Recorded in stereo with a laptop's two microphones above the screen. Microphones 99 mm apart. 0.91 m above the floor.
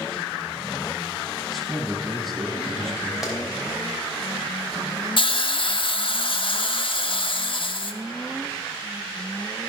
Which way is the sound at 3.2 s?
5° right (ahead or behind).